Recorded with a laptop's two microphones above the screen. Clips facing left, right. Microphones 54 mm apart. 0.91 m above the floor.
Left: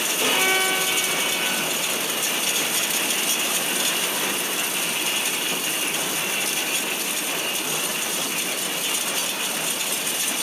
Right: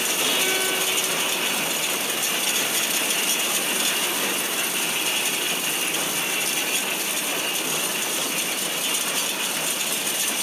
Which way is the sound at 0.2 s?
45° left (ahead or behind).